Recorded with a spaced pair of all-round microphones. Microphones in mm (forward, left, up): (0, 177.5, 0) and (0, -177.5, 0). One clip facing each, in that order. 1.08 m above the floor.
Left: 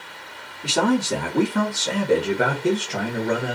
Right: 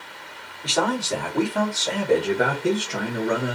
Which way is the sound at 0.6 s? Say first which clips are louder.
Left 4 dB; 40° left (ahead or behind).